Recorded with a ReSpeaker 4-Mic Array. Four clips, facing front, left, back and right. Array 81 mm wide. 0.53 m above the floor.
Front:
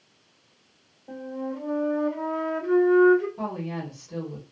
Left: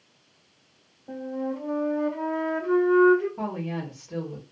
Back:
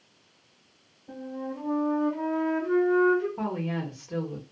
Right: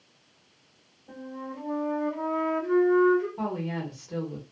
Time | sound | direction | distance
1.1 | a flute | 55° left | 1.3 m
3.4 | a woman speaking | 160° left | 1.0 m